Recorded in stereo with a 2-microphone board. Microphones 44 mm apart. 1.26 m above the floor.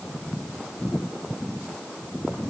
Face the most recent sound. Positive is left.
No sound to turn to.